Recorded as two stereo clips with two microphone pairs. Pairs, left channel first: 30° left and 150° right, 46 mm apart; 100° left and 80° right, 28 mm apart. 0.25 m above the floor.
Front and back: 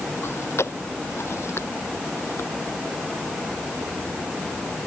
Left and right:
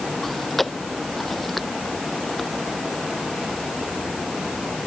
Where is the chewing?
15° left.